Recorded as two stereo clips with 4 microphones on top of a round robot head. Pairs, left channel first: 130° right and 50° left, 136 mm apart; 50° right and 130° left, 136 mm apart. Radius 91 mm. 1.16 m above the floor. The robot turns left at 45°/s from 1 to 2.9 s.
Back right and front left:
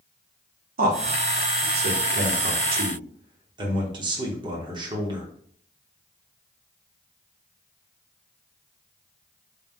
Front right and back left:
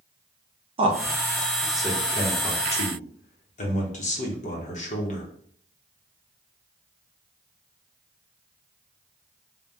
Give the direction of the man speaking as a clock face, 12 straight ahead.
9 o'clock.